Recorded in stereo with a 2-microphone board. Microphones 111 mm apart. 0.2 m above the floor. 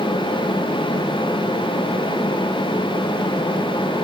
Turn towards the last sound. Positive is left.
No sound to turn to.